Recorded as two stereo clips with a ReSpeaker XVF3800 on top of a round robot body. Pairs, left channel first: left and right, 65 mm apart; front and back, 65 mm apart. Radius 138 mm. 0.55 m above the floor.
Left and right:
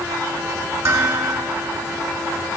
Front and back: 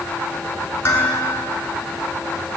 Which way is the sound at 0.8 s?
55° right.